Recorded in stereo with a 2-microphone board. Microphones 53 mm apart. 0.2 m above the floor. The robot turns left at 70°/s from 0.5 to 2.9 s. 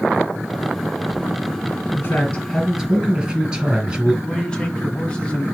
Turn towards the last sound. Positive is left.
turn(degrees=25)  # may be behind; listen again after turning